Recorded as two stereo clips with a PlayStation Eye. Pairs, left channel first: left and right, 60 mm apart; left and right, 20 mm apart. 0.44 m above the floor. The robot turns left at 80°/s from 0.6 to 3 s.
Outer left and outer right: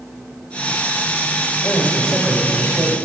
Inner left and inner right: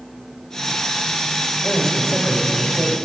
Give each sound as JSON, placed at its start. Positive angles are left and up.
{"t": 1.6, "sound": "a man speaking", "azimuth_deg": 50, "distance_m": 2.0}